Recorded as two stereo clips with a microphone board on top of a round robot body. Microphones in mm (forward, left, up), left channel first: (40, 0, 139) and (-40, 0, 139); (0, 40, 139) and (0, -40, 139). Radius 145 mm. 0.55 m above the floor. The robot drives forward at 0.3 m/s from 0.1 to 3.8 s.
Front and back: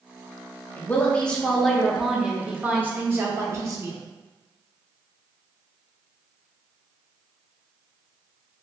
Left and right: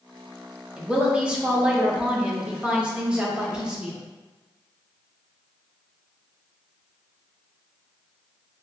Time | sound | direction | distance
0.8 | a woman speaking | 30° right | 0.9 m